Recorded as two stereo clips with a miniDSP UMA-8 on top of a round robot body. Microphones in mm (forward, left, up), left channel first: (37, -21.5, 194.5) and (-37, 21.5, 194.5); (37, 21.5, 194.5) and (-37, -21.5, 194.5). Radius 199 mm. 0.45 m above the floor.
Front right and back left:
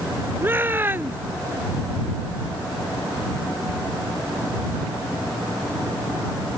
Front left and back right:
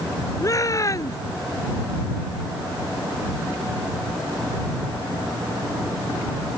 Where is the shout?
85° left.